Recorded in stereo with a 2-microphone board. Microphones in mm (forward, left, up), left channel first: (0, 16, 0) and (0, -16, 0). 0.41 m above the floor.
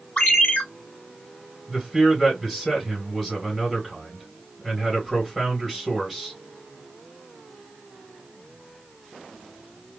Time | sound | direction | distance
0.2 | a ringtone | 40° left (ahead or behind) | 1.3 m
1.7 | a man speaking | 5° left (ahead or behind) | 2 m